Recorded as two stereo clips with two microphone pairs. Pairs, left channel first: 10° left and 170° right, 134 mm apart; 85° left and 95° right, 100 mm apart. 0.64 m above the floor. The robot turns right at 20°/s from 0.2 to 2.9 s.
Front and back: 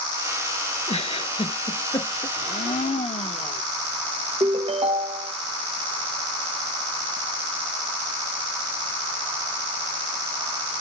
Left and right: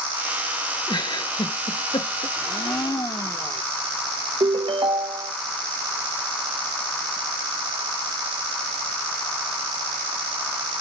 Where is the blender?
30° left, 0.8 m; by 3.6 s 40° left, 0.8 m.